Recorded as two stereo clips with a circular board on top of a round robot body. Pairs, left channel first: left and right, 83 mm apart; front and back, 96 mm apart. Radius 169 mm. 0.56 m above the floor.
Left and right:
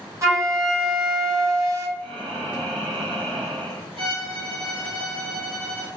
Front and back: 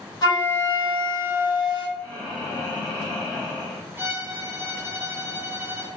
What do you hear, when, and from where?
0.2 s a flute: 40° right, 1.5 m
2.0 s breathing: 80° right, 0.9 m
4.0 s a violin: 115° right, 0.9 m